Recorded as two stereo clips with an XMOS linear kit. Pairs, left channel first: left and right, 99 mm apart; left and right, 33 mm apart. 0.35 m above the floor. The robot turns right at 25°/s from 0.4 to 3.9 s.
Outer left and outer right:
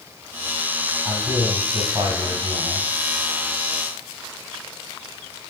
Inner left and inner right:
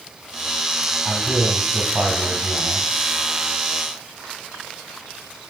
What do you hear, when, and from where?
1.1 s a man speaking: 140° right, 2.5 m; by 2.9 s 95° right, 2.5 m